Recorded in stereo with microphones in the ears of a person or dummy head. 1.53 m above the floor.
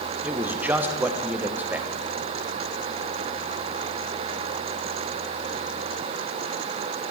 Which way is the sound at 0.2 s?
10° right (ahead or behind).